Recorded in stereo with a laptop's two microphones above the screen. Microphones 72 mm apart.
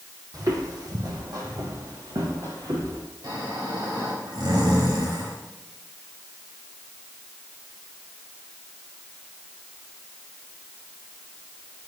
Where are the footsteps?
55° right (ahead or behind), 1.8 m; by 3.0 s 75° right (ahead or behind), 3.5 m.